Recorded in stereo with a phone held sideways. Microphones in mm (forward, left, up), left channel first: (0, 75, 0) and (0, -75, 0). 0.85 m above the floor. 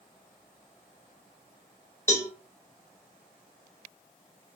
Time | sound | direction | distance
2.1 | a cowbell | 15° left (ahead or behind) | 0.8 m